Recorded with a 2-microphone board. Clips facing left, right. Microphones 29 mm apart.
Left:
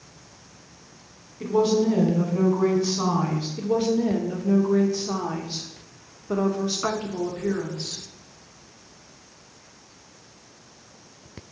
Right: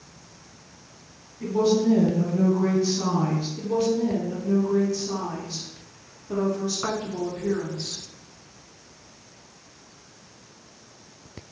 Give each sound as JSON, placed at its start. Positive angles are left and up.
{"t": 1.4, "sound": "a woman speaking", "side_deg": 70, "distance_m": 2.5}
{"t": 3.6, "sound": "a woman speaking", "side_deg": 40, "distance_m": 1.1}